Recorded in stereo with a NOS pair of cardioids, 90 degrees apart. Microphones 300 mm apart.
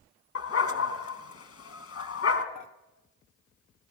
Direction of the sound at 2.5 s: 70° left.